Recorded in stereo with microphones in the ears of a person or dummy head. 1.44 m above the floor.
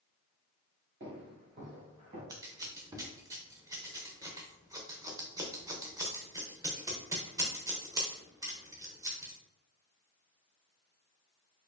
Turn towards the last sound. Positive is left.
turn(degrees=-15)  # may be behind; listen again after turning